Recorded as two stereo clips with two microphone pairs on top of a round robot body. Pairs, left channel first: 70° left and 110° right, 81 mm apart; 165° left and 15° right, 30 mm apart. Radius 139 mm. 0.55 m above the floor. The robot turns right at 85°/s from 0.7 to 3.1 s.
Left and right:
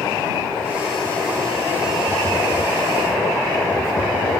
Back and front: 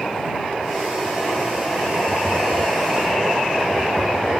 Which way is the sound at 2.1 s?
30° right.